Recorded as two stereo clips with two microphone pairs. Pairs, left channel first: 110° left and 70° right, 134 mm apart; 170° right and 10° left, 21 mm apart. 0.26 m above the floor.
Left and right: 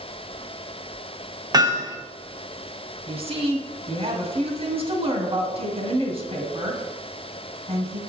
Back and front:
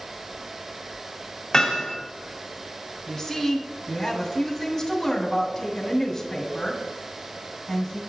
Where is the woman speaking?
95° right, 2 m.